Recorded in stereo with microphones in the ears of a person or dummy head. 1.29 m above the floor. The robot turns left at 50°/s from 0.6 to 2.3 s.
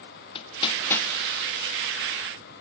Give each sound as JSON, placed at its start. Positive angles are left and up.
{"t": 0.3, "sound": "hammering", "side_deg": 30, "distance_m": 1.5}